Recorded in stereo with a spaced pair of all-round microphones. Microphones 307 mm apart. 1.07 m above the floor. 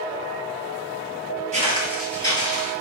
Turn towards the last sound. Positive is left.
turn(degrees=25)  # may be behind; listen again after turning